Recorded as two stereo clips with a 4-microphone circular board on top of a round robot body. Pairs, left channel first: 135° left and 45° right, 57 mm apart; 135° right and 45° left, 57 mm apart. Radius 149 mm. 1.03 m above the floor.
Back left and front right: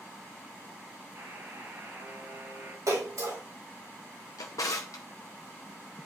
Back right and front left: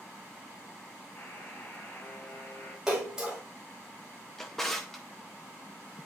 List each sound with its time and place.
1.1 s a buzzer: 90° right, 4 m
2.9 s a splash: 35° right, 4 m
4.4 s a drawer: 140° left, 0.6 m